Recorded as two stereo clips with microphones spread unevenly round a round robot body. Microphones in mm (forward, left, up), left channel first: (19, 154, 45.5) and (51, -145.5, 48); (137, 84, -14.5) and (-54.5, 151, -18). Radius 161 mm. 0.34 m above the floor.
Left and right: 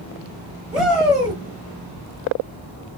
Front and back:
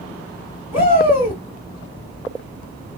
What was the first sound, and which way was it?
A shout, straight ahead.